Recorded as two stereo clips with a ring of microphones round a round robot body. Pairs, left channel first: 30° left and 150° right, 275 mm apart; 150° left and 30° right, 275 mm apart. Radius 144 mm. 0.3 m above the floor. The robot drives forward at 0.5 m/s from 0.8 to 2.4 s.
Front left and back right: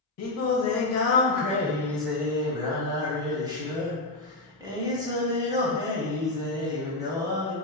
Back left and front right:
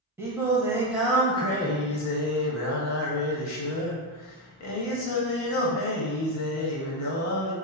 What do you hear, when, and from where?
0.2 s singing: 50° left, 0.7 m; by 7.5 s 135° left, 0.7 m